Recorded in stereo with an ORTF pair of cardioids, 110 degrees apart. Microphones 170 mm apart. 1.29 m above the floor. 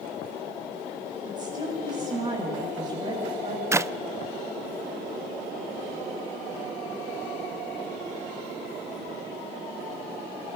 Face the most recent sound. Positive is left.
turn(degrees=-15)